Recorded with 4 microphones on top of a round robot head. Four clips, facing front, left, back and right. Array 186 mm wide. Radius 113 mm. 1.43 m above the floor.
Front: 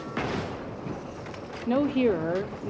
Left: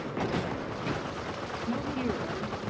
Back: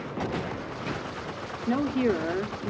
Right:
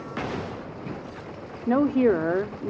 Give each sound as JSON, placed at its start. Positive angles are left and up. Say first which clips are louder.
{"t": 1.7, "sound": "a woman speaking", "louder": "right 13 dB, front 2 dB", "azimuth_deg": -70, "distance_m": 0.9}